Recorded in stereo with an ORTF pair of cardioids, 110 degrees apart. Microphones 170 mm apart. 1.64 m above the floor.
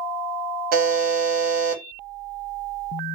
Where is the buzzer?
60° right, 1.2 m.